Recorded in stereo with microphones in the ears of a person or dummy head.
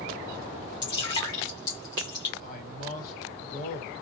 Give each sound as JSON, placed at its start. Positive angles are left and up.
{"t": 0.8, "sound": "dripping", "side_deg": 20, "distance_m": 0.8}
{"t": 2.4, "sound": "a man speaking", "side_deg": 50, "distance_m": 1.4}